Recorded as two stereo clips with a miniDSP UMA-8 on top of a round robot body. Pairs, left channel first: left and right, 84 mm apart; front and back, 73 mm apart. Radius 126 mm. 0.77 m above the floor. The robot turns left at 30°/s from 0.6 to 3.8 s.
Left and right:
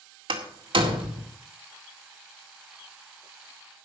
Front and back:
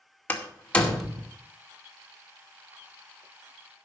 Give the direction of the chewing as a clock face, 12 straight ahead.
I don't hear chewing.